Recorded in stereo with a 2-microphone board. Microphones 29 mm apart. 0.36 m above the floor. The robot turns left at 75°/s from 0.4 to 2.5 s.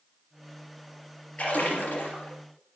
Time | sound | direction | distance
1.4 | a splash | 135° left | 2.5 m